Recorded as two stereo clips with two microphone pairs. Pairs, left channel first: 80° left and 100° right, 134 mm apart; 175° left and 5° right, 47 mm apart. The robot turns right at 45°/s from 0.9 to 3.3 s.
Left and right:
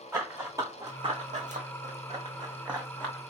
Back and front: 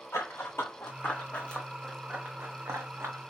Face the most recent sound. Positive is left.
turn(degrees=20)